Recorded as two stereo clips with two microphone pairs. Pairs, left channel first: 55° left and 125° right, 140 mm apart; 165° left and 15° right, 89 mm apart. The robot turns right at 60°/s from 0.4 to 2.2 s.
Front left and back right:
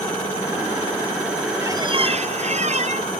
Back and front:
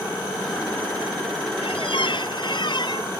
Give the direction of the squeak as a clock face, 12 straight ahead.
7 o'clock.